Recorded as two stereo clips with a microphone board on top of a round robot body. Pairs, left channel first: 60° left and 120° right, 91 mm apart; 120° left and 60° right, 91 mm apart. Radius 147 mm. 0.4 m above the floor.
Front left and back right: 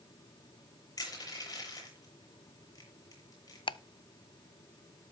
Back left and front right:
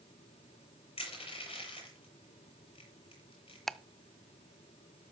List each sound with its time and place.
1.0 s crushing: 110° left, 7 m
3.7 s ticking: 35° left, 0.6 m